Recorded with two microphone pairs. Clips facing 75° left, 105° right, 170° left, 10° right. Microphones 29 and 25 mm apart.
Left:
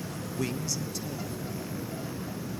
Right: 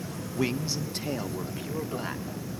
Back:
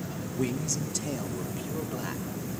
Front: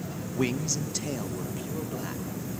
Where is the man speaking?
40° right, 0.7 m; by 2.2 s 110° right, 1.4 m.